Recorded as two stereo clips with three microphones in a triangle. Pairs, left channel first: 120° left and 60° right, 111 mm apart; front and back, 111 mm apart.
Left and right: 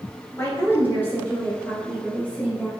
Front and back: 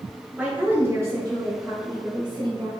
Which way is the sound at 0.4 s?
110° left.